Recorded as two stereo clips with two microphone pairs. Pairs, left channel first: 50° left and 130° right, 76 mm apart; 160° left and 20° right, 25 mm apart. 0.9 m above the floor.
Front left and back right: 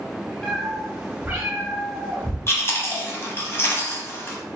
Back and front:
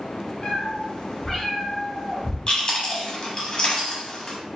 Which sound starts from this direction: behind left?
A cat meowing, at 0.4 s.